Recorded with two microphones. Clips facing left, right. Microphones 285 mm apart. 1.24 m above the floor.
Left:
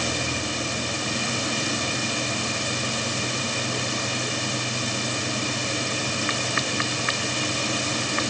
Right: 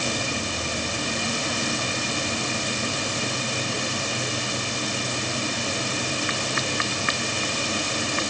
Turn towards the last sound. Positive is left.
No sound to turn to.